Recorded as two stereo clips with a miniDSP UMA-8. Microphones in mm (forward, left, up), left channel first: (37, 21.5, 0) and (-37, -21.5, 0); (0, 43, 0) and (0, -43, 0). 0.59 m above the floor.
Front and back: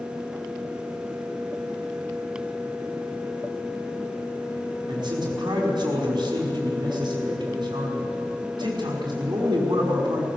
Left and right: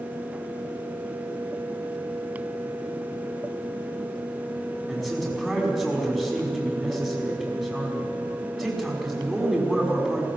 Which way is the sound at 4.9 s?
Straight behind.